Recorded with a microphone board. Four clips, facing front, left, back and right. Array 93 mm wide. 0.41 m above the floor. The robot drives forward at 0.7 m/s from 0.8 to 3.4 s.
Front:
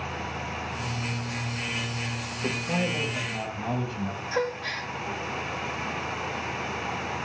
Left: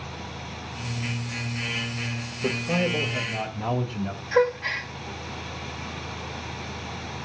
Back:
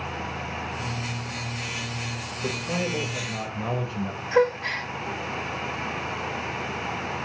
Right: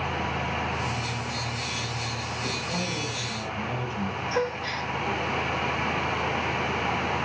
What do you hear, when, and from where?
2.4 s a man speaking: 100° left, 2.0 m; by 4.2 s 125° left, 2 m
4.3 s a gasp: 135° left, 1.8 m